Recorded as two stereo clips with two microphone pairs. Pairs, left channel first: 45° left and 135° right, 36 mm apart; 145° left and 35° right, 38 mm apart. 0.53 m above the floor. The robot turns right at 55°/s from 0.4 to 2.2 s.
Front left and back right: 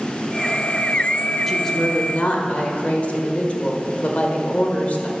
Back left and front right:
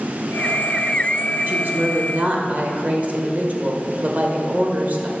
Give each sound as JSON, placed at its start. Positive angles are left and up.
{"t": 1.5, "sound": "a woman speaking", "azimuth_deg": -40, "distance_m": 1.5}